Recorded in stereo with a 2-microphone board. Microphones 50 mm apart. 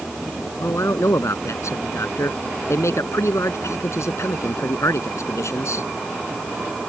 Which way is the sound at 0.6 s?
75° left (ahead or behind).